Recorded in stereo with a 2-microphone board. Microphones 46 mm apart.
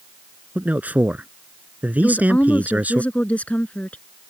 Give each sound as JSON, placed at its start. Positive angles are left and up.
{"t": 0.6, "sound": "a man speaking", "side_deg": -45}
{"t": 2.0, "sound": "a woman speaking", "side_deg": 35}